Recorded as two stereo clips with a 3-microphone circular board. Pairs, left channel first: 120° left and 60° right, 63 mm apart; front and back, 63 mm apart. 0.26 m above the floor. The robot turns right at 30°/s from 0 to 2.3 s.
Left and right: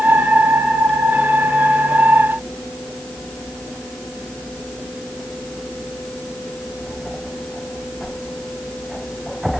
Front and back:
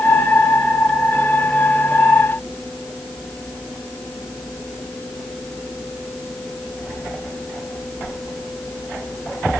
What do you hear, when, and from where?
Only background noise.